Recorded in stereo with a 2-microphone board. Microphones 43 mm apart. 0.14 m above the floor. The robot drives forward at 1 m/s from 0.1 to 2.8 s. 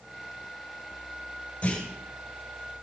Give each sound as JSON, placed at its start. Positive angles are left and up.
{"t": 1.6, "sound": "a clunk", "side_deg": 30, "distance_m": 6.5}